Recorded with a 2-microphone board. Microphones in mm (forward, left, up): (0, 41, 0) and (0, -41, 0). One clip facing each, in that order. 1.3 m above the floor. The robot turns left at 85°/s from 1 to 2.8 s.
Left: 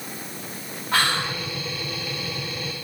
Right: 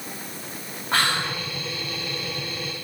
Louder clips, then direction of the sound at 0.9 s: Even; 145° right.